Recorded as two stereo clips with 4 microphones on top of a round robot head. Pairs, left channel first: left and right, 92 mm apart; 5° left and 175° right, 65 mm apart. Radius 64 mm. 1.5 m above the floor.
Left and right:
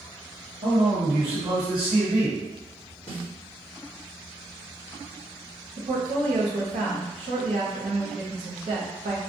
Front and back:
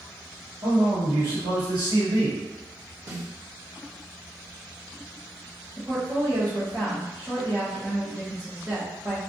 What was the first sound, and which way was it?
A man speaking, 135° right.